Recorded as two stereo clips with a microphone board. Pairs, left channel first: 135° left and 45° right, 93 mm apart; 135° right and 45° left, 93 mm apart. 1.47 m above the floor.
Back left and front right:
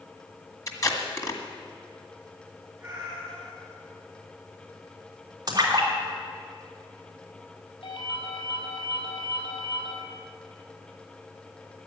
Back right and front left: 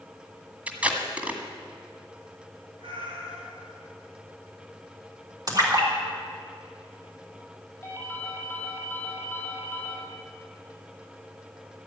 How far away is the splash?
About 3 m.